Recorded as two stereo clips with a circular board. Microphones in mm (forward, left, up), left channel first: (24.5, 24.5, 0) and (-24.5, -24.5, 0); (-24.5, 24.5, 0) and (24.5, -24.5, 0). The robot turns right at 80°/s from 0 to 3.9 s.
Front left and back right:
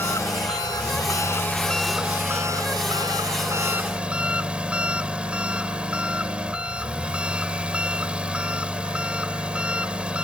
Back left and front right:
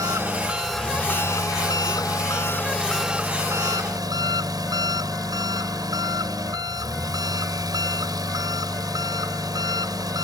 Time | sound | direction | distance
0.0 | an engine running | 10° right | ?